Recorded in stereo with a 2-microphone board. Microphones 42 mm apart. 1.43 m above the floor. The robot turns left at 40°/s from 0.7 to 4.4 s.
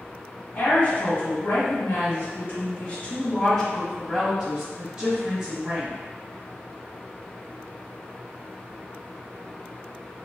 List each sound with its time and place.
0.6 s a woman speaking: 120° left, 1.6 m; by 6.0 s 30° right, 1.6 m